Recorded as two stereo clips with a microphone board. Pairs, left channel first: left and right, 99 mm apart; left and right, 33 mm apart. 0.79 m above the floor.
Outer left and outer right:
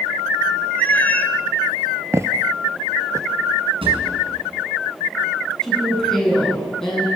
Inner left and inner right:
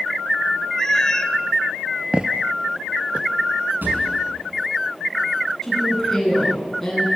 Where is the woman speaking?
5° left (ahead or behind), 9.5 m.